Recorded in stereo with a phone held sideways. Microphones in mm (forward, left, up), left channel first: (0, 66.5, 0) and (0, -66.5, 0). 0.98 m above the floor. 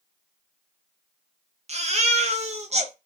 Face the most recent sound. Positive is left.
turn(degrees=-55)  # may be behind; listen again after turning